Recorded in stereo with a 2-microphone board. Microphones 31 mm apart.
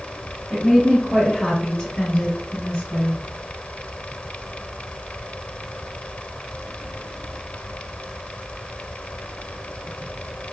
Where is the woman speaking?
5° right (ahead or behind), 1.1 m; by 3.2 s 40° left (ahead or behind), 1.3 m.